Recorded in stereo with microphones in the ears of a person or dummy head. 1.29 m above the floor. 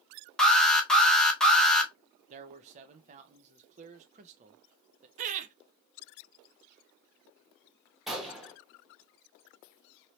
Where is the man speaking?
35° right (ahead or behind), 0.6 m.